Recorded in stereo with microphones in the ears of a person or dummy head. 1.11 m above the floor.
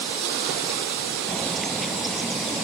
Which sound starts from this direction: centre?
A bird, at 1.3 s.